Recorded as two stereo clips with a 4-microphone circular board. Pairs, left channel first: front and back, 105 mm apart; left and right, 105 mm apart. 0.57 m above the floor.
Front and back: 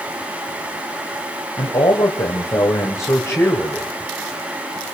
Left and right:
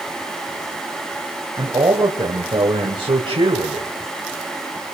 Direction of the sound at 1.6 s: 35° right.